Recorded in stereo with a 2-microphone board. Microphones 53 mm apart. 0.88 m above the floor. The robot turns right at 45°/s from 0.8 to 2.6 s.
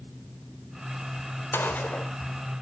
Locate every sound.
1.5 s a gunshot: 45° left (ahead or behind), 2 m; by 2.1 s 20° left (ahead or behind), 2 m